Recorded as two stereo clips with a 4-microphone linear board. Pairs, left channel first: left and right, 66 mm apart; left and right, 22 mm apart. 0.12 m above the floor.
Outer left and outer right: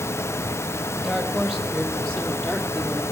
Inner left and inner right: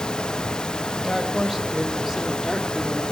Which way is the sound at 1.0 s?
Centre (ahead or behind).